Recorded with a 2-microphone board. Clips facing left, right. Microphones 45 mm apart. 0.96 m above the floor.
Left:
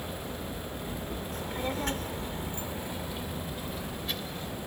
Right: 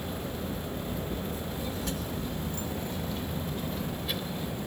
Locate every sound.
1.3 s a child speaking: 55° left (ahead or behind); by 4.6 s 10° right (ahead or behind)